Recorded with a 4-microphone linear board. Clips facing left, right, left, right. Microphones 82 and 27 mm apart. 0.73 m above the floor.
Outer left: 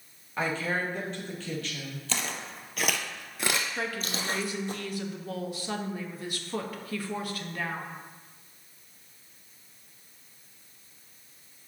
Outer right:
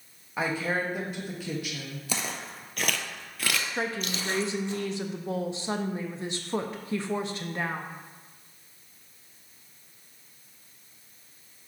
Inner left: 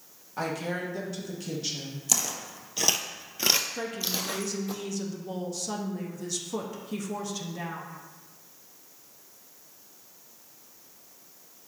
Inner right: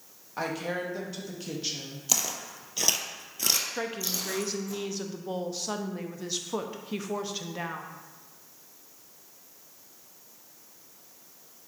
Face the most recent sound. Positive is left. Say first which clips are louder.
# outer right 2 dB, even
turn(degrees=-25)  # may be behind; listen again after turning